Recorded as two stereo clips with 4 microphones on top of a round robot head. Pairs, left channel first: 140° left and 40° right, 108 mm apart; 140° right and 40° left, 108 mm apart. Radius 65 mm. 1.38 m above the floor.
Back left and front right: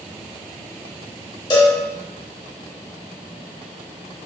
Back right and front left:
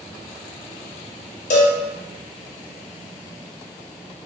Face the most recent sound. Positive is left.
turn(degrees=-165)